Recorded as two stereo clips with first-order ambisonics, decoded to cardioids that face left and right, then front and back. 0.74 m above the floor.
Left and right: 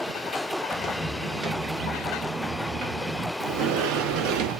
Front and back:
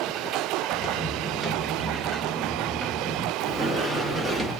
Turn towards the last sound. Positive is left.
turn(degrees=-100)